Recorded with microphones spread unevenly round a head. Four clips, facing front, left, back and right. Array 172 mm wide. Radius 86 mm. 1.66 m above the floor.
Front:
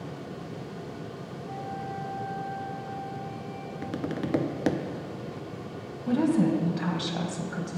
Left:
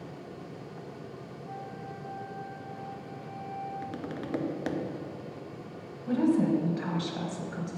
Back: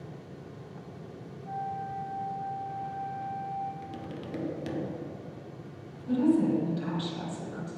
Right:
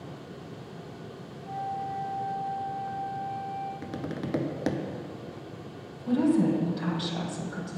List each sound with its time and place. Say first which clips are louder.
1.4 s a flute: right 10 dB, back 2 dB; 155° right, 2.5 m
3.8 s tapping: right 2 dB, front 8 dB; 20° right, 0.6 m
6.1 s a woman speaking: right 1 dB, front 1 dB; 10° right, 1.6 m